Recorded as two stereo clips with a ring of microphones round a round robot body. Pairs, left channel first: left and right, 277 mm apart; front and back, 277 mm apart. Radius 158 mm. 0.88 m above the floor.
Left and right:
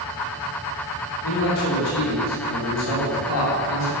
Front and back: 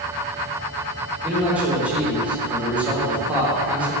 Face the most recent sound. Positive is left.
turn(degrees=95)